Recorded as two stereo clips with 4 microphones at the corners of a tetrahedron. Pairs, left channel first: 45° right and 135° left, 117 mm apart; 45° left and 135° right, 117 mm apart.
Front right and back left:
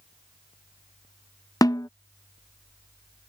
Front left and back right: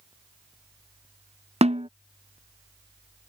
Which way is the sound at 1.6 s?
105° right.